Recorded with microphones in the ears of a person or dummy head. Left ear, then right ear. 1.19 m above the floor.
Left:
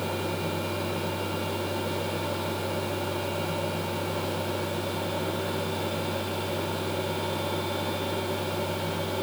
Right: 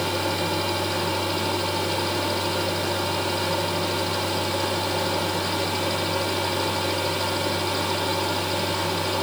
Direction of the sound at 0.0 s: 65° right (ahead or behind).